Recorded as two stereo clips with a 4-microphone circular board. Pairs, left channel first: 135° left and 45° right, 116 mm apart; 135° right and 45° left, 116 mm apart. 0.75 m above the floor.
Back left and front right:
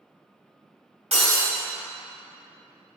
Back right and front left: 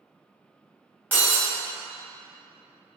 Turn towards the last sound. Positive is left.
turn(degrees=-25)